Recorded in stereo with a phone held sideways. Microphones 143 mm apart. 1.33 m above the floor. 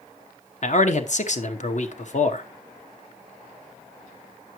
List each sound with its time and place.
0.6 s a man speaking: 55° left (ahead or behind), 0.9 m